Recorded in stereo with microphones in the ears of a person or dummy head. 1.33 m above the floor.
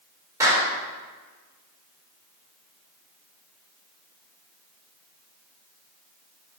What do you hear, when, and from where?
0.4 s a clap: 15° right (ahead or behind), 4 m